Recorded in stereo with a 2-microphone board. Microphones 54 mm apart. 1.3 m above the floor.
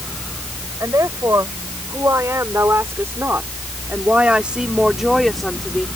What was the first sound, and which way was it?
A woman speaking, 75° right (ahead or behind).